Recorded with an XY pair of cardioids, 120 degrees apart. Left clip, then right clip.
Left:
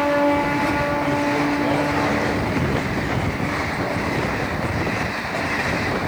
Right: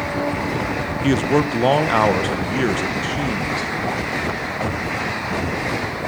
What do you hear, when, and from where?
1.0 s a man speaking: 65° right, 0.6 m; by 3.7 s 70° right, 2.5 m